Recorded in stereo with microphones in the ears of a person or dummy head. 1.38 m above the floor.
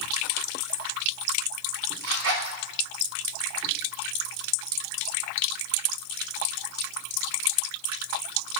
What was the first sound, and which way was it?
A zipper, 80° right.